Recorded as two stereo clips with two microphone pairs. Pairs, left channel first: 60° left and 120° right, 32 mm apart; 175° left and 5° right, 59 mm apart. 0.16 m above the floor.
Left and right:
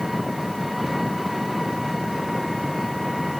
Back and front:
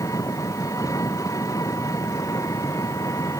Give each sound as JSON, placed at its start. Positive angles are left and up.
{"t": 0.0, "sound": "an engine running", "azimuth_deg": 150}